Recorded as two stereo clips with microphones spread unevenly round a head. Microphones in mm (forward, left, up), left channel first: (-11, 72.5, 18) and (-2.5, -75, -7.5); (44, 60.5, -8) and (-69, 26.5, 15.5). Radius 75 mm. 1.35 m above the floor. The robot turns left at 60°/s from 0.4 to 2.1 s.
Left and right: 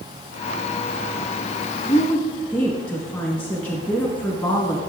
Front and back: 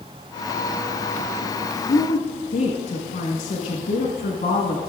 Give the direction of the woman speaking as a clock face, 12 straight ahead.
11 o'clock.